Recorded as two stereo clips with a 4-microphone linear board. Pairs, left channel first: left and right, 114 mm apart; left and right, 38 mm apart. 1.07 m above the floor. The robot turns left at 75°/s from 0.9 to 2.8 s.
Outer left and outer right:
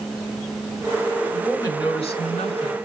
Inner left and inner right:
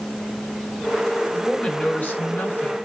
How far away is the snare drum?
I don't hear a snare drum.